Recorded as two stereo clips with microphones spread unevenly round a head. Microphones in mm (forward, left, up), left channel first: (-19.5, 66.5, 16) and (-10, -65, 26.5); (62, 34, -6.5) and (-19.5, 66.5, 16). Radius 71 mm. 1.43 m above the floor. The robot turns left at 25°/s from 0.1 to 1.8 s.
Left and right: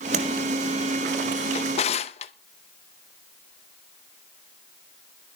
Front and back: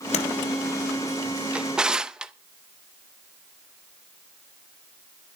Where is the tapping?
45° right, 2.5 m.